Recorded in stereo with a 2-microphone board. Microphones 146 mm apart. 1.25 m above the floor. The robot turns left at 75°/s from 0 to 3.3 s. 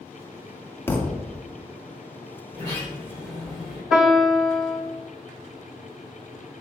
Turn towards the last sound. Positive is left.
turn(degrees=-5)  # may be behind; listen again after turning